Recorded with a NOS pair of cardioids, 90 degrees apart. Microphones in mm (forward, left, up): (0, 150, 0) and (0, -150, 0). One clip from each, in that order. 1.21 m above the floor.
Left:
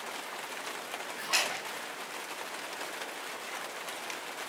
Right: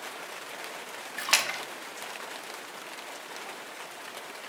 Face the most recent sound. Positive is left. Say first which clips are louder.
# right 4 dB
turn(degrees=-70)